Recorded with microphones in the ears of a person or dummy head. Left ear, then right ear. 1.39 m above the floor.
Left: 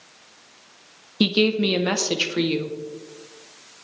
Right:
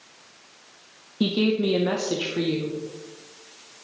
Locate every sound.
1.2 s a woman speaking: 75° left (ahead or behind), 1.0 m